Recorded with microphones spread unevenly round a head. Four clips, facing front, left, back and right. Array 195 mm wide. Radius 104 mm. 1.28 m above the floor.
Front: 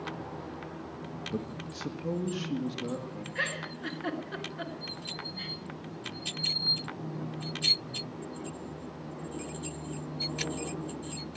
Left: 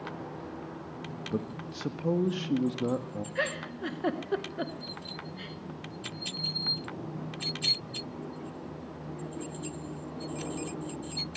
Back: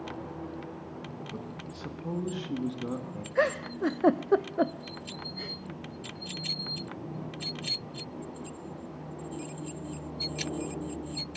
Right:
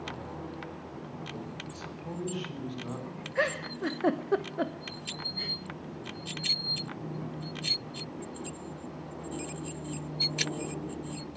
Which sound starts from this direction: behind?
A giggle, at 3.4 s.